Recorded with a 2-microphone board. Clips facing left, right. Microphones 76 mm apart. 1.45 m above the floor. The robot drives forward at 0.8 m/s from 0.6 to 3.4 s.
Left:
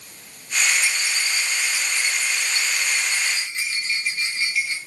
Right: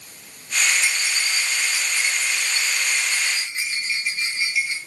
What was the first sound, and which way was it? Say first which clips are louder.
A rattle: even; 30° right (ahead or behind).